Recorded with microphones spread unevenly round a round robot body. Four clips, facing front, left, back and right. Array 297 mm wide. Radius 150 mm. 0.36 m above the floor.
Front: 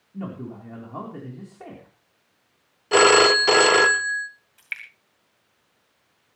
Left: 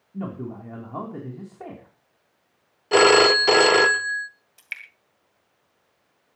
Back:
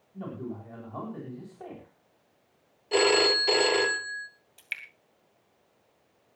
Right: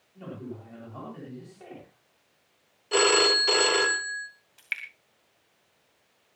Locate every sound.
0.1 s a man speaking: 60° left, 4 m
2.9 s a phone ringing: 40° left, 0.9 m
4.6 s dripping: 160° left, 1.7 m